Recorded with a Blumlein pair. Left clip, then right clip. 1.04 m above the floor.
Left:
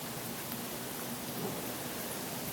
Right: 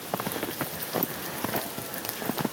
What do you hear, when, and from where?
Only background noise.